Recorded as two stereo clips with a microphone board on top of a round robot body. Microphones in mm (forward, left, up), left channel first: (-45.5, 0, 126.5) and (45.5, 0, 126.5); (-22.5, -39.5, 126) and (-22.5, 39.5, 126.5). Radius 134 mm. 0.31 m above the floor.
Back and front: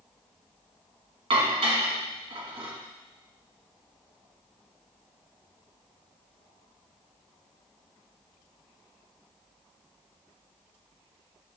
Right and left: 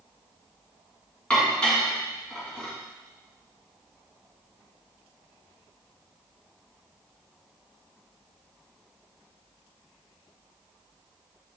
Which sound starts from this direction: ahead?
Dishes clattering, at 1.3 s.